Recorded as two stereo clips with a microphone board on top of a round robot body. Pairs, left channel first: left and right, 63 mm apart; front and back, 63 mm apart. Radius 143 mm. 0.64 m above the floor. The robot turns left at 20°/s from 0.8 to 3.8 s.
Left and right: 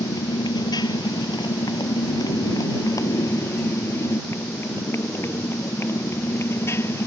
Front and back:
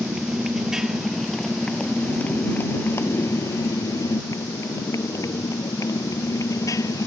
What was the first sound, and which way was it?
A motorcycle, 100° left.